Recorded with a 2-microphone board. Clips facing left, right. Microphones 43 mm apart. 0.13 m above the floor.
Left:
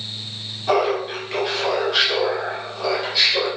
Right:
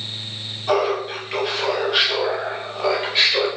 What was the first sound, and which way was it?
Laughter, 10° left (ahead or behind).